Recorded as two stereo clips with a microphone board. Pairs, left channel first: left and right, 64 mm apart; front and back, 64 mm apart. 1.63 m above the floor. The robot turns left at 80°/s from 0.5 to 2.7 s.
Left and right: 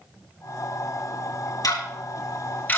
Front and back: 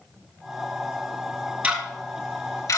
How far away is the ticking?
About 3 m.